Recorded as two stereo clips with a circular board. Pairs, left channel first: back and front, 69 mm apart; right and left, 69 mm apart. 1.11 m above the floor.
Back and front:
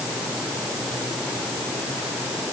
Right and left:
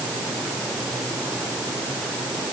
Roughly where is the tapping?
I don't hear tapping.